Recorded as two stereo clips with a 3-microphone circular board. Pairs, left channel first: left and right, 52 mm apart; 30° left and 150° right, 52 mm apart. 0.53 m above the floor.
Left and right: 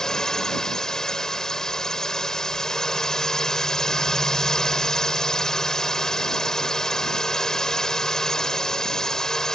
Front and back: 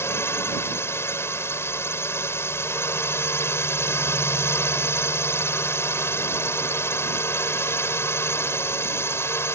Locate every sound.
0.0 s a drone: 10° left